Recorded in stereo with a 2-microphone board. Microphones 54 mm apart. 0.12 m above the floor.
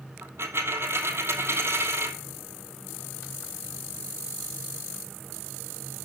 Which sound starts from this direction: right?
A dropped coin, at 0.2 s.